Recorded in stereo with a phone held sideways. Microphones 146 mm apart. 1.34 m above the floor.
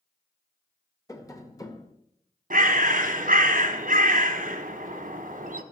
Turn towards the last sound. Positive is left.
turn(degrees=-65)  # may be behind; listen again after turning